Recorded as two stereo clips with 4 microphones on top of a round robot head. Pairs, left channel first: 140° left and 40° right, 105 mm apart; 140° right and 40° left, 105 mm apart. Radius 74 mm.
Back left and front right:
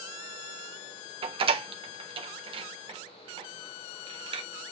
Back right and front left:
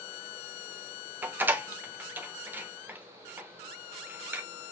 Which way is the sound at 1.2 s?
30° right.